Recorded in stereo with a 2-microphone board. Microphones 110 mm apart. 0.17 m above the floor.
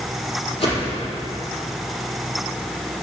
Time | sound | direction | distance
0.6 | a whoosh | 55° left (ahead or behind) | 5.5 m